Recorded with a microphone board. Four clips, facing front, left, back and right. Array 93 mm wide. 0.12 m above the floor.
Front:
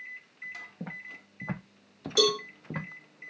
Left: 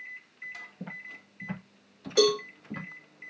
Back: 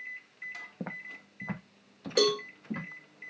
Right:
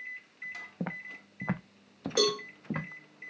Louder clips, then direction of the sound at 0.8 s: Right 7 dB, back 2 dB; 120° right.